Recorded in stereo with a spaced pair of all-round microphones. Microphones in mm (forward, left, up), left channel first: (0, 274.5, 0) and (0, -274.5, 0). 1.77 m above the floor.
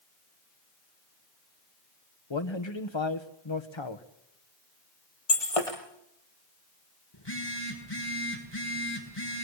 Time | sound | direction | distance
2.3 | a man speaking | 55° left (ahead or behind) | 1.8 m
5.3 | breaking glass | 75° left (ahead or behind) | 7 m
7.1 | a phone buzzing | 45° left (ahead or behind) | 8.5 m